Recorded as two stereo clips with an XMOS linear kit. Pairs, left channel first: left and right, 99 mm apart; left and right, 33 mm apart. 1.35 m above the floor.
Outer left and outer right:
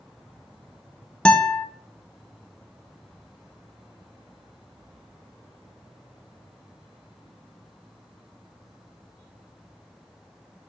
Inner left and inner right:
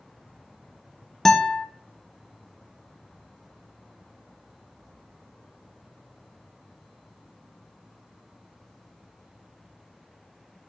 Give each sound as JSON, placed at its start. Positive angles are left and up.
{"t": 1.2, "sound": "a guitar", "side_deg": 10, "distance_m": 0.7}